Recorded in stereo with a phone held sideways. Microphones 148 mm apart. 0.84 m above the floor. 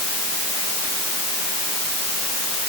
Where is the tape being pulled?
I don't hear tape being pulled.